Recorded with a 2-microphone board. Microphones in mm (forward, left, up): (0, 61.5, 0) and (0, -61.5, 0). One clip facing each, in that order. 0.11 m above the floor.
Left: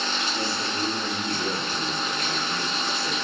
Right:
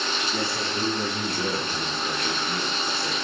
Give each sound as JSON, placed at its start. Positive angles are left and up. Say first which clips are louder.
{"t": 0.3, "sound": "a man speaking", "louder": "right 1 dB", "side_deg": -65, "distance_m": 6.5}